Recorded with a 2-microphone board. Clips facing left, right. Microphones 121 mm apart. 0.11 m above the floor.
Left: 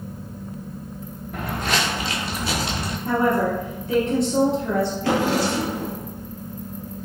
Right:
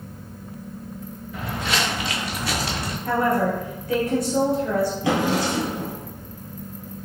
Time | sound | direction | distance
1.3 | footsteps | 55° left (ahead or behind) | 0.8 m
3.0 | a woman speaking | 25° left (ahead or behind) | 1.8 m
5.0 | a drawer | 15° right (ahead or behind) | 1.4 m